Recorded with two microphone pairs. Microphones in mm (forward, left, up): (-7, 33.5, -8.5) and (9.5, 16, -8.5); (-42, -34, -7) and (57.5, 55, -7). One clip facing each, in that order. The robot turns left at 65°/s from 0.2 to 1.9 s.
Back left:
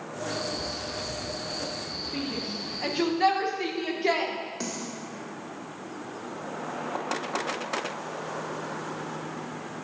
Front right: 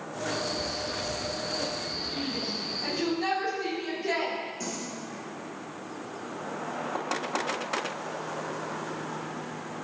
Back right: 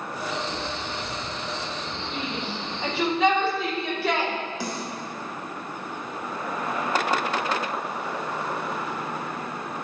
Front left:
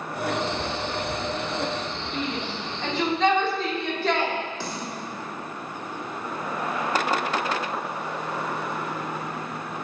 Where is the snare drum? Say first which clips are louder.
Back left 1 dB, back right 2 dB; 145° left, 1.7 m.